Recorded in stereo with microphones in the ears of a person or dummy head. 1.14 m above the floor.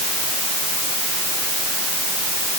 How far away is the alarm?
I don't hear an alarm.